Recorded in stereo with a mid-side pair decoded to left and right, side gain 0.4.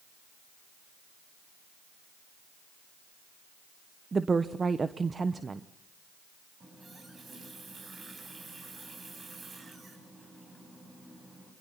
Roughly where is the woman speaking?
Ahead right.